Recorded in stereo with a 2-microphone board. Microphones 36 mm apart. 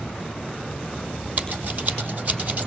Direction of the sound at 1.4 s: 45° right (ahead or behind).